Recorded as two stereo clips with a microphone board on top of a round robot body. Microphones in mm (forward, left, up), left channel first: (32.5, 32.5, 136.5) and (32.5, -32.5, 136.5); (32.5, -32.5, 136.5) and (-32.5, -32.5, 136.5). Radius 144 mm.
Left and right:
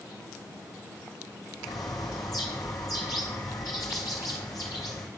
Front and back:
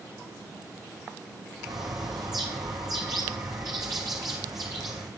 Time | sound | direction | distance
1.6 | a bird | 140° left | 0.5 m